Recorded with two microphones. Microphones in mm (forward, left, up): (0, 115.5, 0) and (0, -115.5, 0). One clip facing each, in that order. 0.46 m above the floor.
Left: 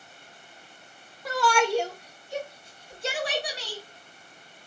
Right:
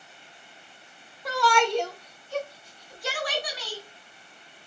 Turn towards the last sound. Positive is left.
turn(degrees=30)  # may be behind; listen again after turning